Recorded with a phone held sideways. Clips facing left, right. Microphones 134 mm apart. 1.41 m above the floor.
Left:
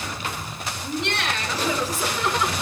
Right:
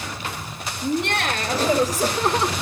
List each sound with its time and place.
0.8 s laughter: 55° right (ahead or behind), 3.5 m; by 2.5 s 35° right (ahead or behind), 1.9 m